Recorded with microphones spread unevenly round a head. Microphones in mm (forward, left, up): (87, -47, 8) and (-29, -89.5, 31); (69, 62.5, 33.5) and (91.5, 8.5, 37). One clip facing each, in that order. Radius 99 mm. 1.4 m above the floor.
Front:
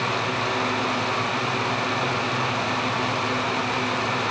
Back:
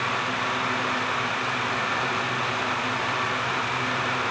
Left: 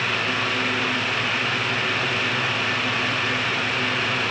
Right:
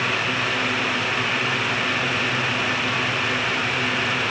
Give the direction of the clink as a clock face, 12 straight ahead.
No clink in this recording.